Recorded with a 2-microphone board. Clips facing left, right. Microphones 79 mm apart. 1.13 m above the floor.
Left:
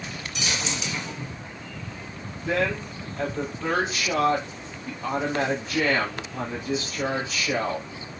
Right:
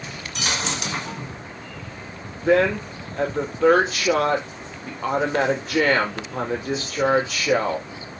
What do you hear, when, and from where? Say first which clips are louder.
0.3 s a dropped coin: right 4 dB; 55° right (ahead or behind), 1.7 m
2.4 s a woman speaking: right 7 dB; 80° right, 3.5 m